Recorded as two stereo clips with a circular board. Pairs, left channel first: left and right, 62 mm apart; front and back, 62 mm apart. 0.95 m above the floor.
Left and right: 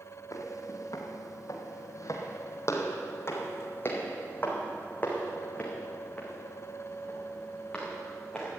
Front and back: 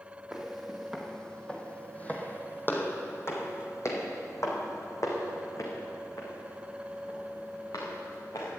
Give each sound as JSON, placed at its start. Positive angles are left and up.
{"t": 0.3, "sound": "footsteps", "azimuth_deg": 95, "distance_m": 2.0}